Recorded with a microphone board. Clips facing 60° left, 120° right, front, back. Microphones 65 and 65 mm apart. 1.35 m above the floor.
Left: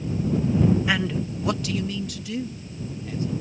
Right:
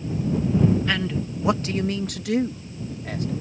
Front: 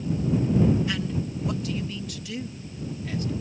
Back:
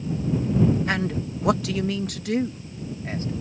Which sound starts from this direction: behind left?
A man speaking, at 0.9 s.